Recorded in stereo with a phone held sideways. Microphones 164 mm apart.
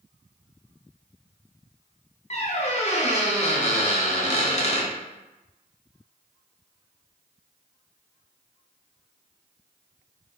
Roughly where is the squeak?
Left.